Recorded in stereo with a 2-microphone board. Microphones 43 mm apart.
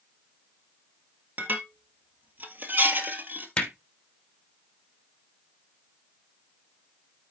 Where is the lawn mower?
No lawn mower in this recording.